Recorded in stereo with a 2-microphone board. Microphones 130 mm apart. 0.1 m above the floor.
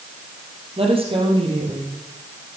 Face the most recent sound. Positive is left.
turn(degrees=-40)  # may be behind; listen again after turning